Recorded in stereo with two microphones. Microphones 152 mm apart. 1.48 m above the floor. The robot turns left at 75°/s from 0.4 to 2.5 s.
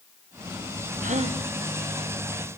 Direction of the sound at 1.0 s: 60° right (ahead or behind).